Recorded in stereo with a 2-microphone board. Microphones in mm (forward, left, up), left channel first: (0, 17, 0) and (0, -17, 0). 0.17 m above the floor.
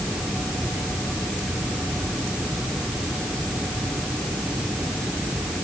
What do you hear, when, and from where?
Only background noise.